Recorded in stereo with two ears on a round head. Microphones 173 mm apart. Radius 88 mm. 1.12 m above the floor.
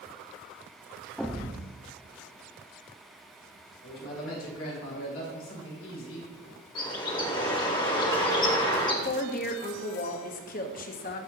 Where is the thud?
Centre (ahead or behind), 0.7 m.